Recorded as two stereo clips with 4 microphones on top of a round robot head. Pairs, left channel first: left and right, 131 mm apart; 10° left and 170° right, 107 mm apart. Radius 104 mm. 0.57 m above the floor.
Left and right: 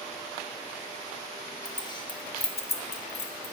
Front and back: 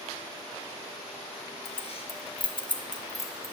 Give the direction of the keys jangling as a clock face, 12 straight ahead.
11 o'clock.